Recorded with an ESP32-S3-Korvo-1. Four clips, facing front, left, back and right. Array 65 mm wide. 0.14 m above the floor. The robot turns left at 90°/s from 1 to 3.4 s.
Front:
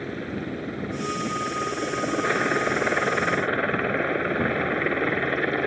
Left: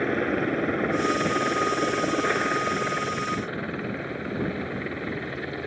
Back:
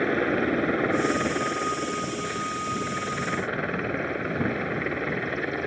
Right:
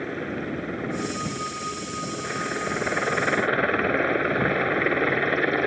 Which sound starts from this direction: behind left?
A helicopter, at 0.0 s.